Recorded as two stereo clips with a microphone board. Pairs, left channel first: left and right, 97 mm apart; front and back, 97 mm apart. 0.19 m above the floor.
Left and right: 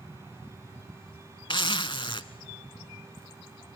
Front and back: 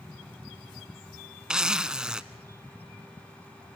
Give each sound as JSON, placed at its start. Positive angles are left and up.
{"t": 1.5, "sound": "a zipper", "azimuth_deg": 100, "distance_m": 0.5}